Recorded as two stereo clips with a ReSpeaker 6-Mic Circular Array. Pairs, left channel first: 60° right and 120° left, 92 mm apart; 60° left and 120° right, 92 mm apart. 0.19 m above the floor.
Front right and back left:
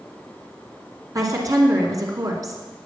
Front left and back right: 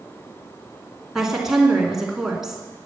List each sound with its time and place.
1.1 s a woman speaking: 155° left, 2.5 m